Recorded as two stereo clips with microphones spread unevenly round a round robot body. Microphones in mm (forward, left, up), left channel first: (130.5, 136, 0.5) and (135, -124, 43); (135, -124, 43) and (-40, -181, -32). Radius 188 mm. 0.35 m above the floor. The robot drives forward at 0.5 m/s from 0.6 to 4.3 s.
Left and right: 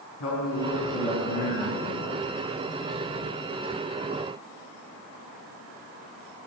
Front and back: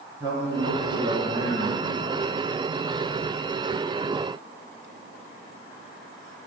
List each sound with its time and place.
0.2 s a man speaking: 130° left, 3 m; by 2.1 s 140° left, 3.5 m